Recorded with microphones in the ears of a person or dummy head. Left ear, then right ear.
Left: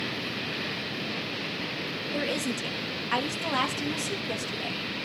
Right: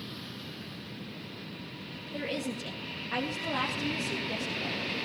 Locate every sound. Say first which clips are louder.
2.1 s a woman speaking: left 4 dB; 50° left (ahead or behind), 2.5 m